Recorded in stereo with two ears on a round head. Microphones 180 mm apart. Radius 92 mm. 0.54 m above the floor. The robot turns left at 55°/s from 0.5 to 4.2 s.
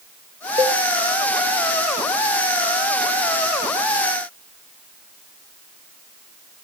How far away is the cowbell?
About 1.2 m.